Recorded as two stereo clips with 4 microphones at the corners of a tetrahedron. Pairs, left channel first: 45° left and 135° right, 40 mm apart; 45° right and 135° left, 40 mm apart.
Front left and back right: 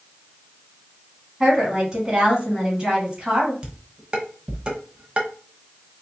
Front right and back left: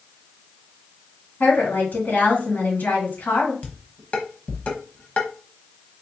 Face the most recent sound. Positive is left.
turn(degrees=-85)